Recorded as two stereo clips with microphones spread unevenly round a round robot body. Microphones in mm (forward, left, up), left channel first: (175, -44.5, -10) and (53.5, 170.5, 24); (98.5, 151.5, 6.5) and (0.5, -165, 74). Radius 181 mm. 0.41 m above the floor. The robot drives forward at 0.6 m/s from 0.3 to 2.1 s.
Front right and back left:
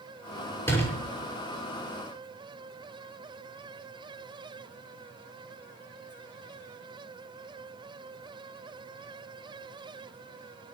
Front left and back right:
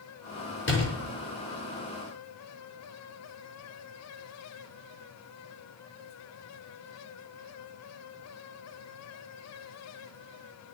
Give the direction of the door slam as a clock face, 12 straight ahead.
11 o'clock.